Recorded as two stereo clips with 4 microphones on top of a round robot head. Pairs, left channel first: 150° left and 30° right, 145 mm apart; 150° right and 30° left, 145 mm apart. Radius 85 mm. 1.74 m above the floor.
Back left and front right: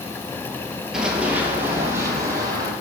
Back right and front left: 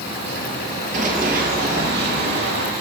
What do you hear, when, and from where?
0.9 s running footsteps: 50° left, 2.5 m; by 2.7 s 30° left, 3.5 m